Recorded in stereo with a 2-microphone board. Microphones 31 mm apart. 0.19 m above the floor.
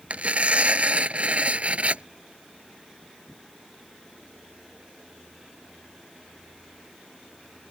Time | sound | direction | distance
0.1 | tearing paper | 45° right (ahead or behind) | ?